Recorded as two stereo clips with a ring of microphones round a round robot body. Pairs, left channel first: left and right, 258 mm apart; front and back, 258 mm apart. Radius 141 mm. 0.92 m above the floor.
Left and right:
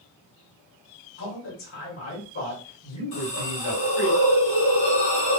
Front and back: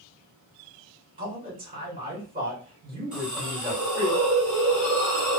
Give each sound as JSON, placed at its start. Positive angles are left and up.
{"t": 1.2, "sound": "a man speaking", "azimuth_deg": 125, "distance_m": 2.0}
{"t": 3.1, "sound": "a hiss", "azimuth_deg": 95, "distance_m": 1.6}